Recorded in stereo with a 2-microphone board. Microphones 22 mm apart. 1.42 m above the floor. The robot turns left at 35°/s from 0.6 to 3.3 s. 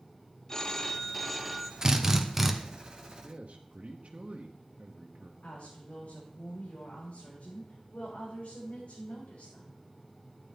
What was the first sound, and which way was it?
A phone ringing, 35° left.